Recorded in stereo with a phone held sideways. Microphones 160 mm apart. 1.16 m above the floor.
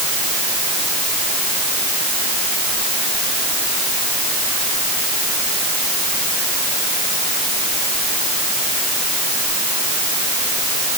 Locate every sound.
Only background noise.